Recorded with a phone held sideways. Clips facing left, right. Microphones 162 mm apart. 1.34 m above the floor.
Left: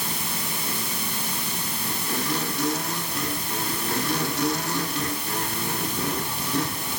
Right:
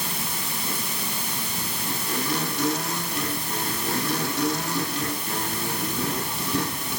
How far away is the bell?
I don't hear a bell.